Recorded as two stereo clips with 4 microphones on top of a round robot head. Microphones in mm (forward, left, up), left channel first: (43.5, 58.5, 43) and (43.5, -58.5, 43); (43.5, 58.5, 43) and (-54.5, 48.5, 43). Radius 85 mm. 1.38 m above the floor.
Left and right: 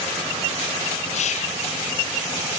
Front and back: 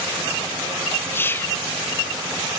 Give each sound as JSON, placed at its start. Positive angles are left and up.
{"t": 1.1, "sound": "whispering", "azimuth_deg": 70, "distance_m": 0.8}